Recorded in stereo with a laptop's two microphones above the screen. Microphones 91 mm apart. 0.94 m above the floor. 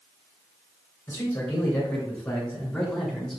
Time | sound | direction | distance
1.1 | a man speaking | 30° left (ahead or behind) | 3.5 m